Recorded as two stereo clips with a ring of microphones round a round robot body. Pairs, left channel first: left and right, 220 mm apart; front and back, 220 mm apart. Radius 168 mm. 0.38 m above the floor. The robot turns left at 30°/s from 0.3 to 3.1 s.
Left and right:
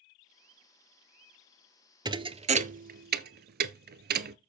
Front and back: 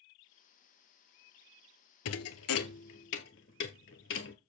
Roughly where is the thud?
Ahead.